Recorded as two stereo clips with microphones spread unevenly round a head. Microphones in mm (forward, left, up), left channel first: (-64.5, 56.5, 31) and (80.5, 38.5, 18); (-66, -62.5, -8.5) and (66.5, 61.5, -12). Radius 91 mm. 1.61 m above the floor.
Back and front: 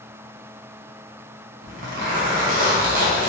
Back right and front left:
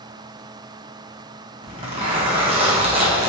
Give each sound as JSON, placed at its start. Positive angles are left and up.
{"t": 1.6, "sound": "a zipper", "azimuth_deg": -10, "distance_m": 1.0}